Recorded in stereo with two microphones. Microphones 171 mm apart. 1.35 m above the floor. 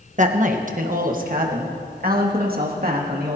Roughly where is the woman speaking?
Right.